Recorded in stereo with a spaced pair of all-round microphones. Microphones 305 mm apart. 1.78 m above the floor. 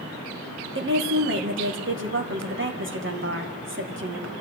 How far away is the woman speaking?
About 2 m.